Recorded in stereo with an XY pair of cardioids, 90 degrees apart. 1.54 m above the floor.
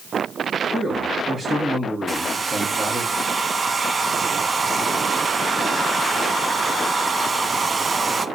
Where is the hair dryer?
30° right, 0.8 m.